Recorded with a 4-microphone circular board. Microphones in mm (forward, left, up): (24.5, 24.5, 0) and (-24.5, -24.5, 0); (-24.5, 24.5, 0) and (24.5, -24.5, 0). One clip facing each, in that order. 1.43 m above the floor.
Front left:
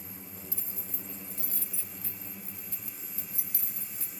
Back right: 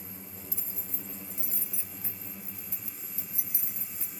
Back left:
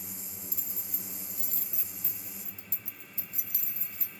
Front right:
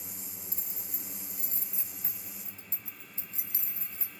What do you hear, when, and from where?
0.5 s keys jangling: 80° right, 0.7 m